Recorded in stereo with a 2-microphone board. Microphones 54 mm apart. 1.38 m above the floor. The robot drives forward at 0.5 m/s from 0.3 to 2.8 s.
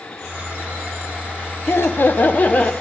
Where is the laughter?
50° left (ahead or behind), 0.6 m; by 2.7 s 25° left (ahead or behind), 1.0 m.